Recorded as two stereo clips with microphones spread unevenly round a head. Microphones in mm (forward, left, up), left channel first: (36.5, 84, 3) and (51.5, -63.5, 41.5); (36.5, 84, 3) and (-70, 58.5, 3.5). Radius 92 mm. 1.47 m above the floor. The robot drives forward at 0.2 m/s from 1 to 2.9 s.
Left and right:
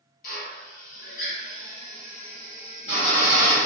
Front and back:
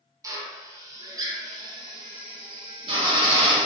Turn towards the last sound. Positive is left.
turn(degrees=160)